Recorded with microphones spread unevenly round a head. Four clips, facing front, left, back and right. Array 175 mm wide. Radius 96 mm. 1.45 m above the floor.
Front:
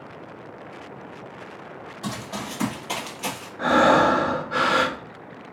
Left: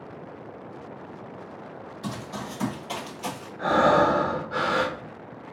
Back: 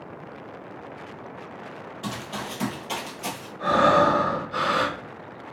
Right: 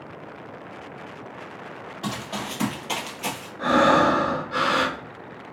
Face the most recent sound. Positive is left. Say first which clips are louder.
# right 2 dB, front 2 dB
turn(degrees=-15)